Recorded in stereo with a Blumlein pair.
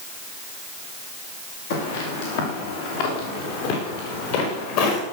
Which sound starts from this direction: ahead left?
Footsteps, at 1.7 s.